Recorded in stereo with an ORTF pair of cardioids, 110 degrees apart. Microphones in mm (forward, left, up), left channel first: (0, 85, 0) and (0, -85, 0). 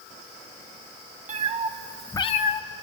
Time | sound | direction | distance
1.3 | a cat meowing | 45° right | 1.4 m